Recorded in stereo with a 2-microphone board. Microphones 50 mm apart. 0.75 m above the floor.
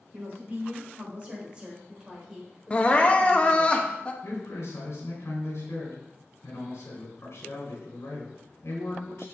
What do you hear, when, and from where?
0.1 s a woman speaking: 30° right (ahead or behind), 4.5 m; by 3.7 s 5° left (ahead or behind), 3 m
2.7 s crying: 25° left (ahead or behind), 0.9 m
4.2 s a man speaking: 70° left (ahead or behind), 3.5 m